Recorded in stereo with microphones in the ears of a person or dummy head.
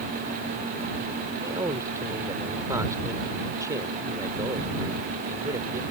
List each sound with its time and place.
1.4 s a man speaking: 15° right (ahead or behind)